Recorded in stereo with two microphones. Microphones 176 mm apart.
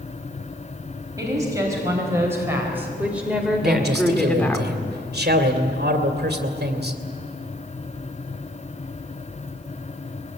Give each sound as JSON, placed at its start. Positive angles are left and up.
{"t": 1.2, "sound": "a woman speaking", "side_deg": -20, "distance_m": 4.0}
{"t": 3.6, "sound": "a man speaking", "side_deg": -60, "distance_m": 2.5}